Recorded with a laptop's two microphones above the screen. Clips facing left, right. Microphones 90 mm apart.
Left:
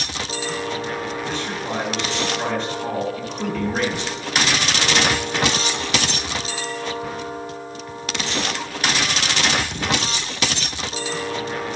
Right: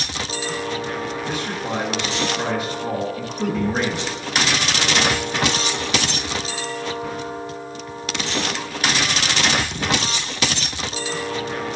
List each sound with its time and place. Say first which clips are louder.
1.3 s a man speaking: right 1 dB; 10° right (ahead or behind), 1.1 m